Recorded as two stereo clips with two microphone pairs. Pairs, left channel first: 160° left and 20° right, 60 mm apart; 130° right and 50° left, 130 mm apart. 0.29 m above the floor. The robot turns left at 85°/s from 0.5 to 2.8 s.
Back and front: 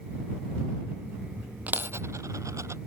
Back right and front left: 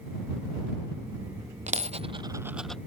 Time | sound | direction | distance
1.7 | a dropped coin | 45° left | ?